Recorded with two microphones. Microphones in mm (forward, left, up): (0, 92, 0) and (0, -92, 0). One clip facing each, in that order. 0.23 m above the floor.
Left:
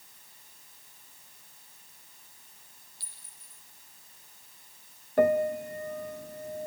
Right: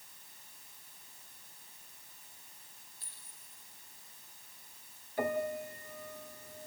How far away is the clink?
About 7 m.